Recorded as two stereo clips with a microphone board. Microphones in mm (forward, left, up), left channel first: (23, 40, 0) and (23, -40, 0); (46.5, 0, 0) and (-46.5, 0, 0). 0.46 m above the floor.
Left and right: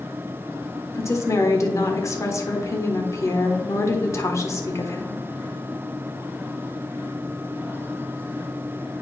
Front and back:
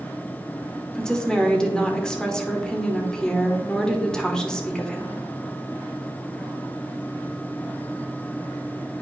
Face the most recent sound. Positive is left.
turn(degrees=80)